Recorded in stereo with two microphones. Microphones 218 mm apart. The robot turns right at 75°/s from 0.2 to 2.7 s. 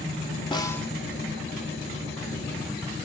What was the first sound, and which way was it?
A snare drum, 20° left (ahead or behind).